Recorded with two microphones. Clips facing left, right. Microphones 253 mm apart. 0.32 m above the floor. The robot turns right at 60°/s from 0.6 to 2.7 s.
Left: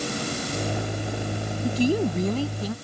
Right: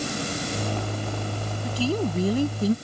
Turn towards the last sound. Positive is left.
turn(degrees=-145)